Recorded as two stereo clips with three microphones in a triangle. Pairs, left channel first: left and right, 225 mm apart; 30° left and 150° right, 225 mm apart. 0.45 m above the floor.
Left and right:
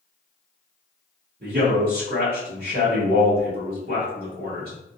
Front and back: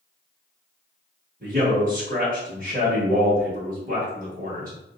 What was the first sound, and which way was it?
A man speaking, 115° right.